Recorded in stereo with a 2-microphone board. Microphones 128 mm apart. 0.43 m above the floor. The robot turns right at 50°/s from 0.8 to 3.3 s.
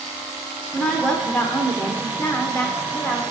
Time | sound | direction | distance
0.7 | a woman speaking | 5° left (ahead or behind) | 0.9 m